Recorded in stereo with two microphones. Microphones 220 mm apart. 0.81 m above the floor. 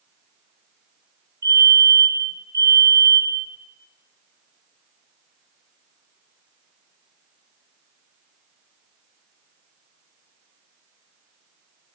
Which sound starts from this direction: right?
A fire alarm, at 1.4 s.